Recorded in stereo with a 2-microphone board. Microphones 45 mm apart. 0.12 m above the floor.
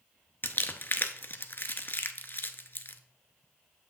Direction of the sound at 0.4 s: 50° left (ahead or behind).